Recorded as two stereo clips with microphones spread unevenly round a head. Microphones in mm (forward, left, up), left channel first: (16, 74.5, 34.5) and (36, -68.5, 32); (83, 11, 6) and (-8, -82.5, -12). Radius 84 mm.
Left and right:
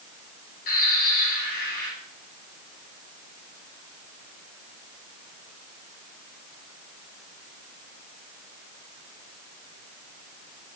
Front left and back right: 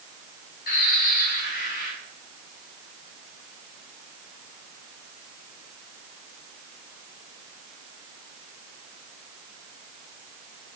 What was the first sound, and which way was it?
A bird, 75° left.